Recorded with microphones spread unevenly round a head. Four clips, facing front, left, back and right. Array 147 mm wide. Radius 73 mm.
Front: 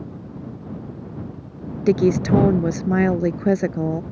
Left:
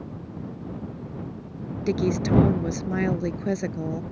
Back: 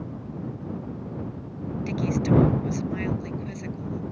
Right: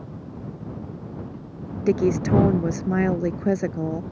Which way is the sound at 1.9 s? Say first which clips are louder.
Right 3 dB, front 8 dB; 20° right.